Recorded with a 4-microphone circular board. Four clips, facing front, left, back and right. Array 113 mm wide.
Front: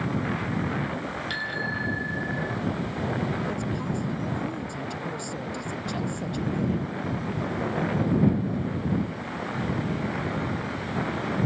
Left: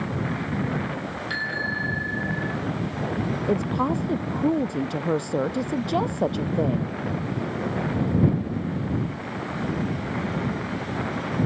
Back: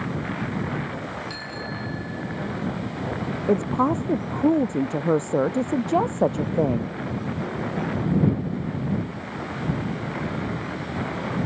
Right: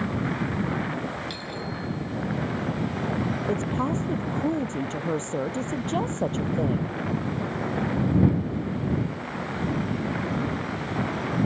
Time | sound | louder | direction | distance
1.3 | a bicycle bell | left 4 dB, front 2 dB | 75° left | ?
3.5 | a woman speaking | left 5 dB, back 9 dB | 170° left | ?